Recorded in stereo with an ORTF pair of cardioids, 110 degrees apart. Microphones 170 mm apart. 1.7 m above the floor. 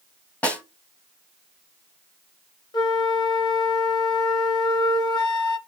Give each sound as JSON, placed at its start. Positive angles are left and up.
{"t": 0.4, "sound": "a snare drum", "azimuth_deg": 10, "distance_m": 0.8}
{"t": 2.7, "sound": "a flute", "azimuth_deg": 25, "distance_m": 0.6}